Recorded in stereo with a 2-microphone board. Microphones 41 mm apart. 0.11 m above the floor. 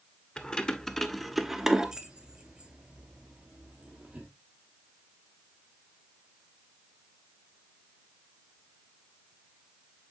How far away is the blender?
I don't hear a blender.